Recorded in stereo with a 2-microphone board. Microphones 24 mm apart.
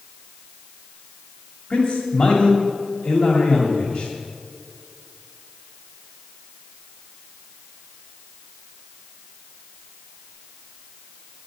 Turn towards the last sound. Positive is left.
turn(degrees=50)  # may be behind; listen again after turning